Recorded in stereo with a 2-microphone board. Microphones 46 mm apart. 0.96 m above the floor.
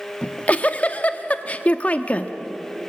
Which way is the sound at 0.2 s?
30° left (ahead or behind).